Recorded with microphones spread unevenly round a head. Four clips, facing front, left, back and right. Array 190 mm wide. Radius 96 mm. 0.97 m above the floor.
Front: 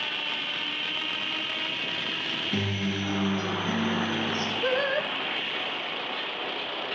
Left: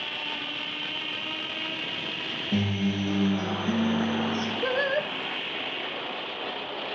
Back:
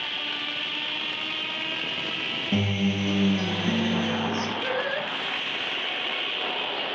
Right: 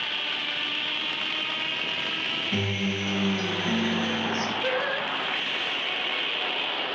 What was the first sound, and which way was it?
A guitar, 165° left.